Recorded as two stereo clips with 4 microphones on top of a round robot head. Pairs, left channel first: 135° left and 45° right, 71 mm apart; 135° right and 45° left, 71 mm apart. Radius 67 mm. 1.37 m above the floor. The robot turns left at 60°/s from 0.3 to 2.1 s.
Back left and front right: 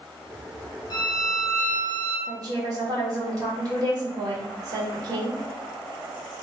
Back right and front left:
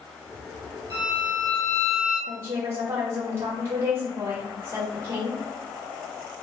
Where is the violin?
100° left, 3 m; by 2.2 s 25° left, 3 m.